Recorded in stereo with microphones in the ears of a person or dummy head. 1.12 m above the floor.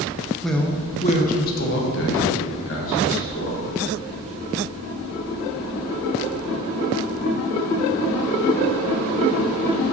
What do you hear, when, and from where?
0.4 s a man speaking: centre (ahead or behind), 0.6 m; by 3.7 s 70° left (ahead or behind), 2 m